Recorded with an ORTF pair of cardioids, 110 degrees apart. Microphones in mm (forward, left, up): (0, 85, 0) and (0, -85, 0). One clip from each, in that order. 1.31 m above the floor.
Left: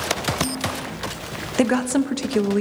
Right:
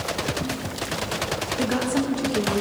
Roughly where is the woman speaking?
Ahead left.